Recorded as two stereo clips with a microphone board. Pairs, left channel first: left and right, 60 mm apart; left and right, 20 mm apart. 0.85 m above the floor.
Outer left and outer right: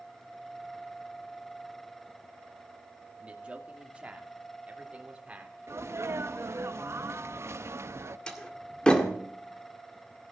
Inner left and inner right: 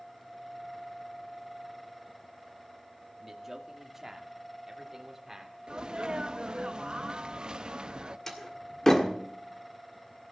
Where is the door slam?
15° left (ahead or behind), 1.8 m.